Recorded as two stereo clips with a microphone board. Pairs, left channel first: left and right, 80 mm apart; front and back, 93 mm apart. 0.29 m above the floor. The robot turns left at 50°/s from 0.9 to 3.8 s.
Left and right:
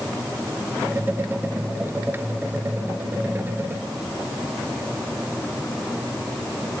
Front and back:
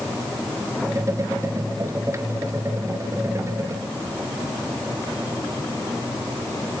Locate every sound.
Only background noise.